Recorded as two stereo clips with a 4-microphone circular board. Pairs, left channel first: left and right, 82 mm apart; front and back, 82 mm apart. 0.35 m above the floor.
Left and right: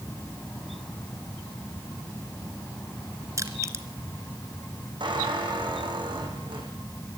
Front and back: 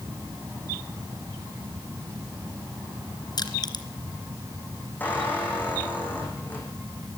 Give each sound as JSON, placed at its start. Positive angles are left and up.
{"t": 3.4, "sound": "crushing", "azimuth_deg": -35, "distance_m": 2.5}
{"t": 5.0, "sound": "a squeak", "azimuth_deg": -70, "distance_m": 7.5}